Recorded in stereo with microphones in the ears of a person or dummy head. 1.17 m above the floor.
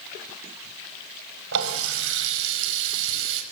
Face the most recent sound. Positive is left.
turn(degrees=-70)  # may be behind; listen again after turning